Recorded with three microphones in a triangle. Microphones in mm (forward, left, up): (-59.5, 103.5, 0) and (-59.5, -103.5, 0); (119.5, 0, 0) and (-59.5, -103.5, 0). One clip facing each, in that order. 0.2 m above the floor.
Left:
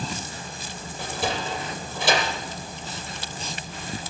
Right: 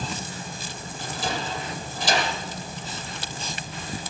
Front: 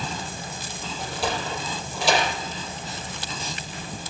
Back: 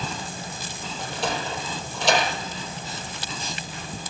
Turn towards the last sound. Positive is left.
turn(degrees=115)